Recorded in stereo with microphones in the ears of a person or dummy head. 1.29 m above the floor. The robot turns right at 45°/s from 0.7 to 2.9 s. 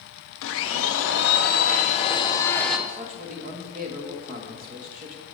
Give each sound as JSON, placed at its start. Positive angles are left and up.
{"t": 0.4, "sound": "a blender", "azimuth_deg": 85, "distance_m": 0.8}
{"t": 2.9, "sound": "a man speaking", "side_deg": -40, "distance_m": 1.4}